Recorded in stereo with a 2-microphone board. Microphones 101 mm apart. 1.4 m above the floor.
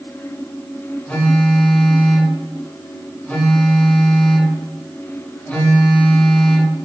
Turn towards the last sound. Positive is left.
turn(degrees=15)  # may be behind; listen again after turning